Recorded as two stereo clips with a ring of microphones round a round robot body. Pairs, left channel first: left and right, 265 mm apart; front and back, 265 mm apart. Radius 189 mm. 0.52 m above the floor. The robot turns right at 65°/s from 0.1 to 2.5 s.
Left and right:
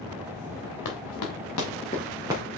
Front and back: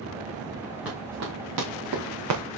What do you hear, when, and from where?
0.8 s running footsteps: 90° left, 3 m; by 2.4 s 165° right, 1.9 m